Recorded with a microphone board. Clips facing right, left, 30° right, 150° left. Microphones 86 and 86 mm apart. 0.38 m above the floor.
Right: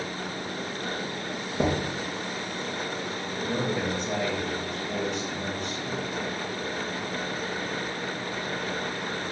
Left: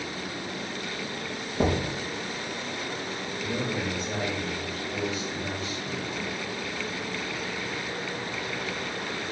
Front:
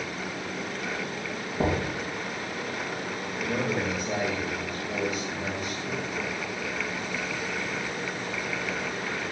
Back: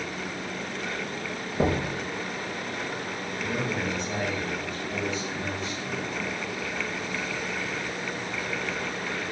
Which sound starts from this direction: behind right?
Knocking, at 1.6 s.